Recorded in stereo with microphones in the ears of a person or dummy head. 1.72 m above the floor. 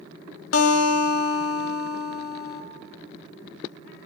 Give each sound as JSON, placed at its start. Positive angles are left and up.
{"t": 0.5, "sound": "a guitar", "side_deg": 85, "distance_m": 0.8}